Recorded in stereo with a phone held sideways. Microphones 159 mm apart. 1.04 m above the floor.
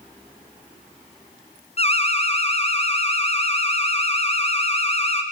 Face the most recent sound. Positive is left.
turn(degrees=40)  # may be behind; listen again after turning